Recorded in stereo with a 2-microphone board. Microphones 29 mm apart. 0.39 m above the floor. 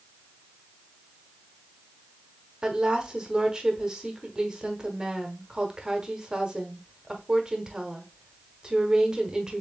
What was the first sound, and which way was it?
A woman speaking, 20° right (ahead or behind).